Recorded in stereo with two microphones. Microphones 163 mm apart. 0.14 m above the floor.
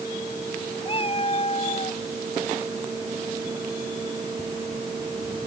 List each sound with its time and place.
0.8 s a cat meowing: 35° left (ahead or behind); by 2.0 s 40° left (ahead or behind)